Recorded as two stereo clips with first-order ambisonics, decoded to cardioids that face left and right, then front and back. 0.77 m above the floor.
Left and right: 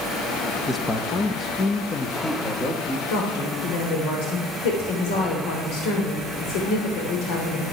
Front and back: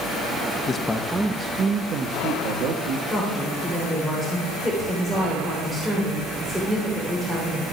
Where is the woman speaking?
90° left, 3 m.